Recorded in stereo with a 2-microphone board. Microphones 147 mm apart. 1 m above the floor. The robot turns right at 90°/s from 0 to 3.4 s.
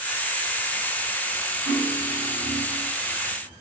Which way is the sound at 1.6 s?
160° right.